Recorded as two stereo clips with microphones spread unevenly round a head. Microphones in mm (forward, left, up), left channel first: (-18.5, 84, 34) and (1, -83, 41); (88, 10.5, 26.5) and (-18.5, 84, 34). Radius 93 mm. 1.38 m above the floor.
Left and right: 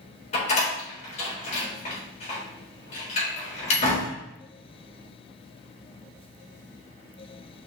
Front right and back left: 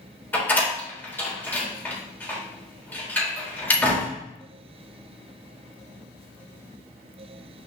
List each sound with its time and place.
0.3 s a door slam: 45° left, 3 m